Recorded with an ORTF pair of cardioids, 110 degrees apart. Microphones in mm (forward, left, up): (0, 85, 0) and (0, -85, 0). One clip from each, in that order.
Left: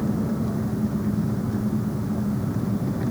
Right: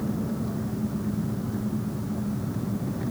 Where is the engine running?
30° left.